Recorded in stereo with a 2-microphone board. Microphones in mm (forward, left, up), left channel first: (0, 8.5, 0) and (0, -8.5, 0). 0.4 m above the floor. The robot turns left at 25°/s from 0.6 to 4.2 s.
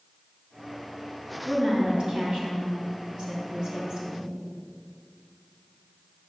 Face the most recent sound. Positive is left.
turn(degrees=-140)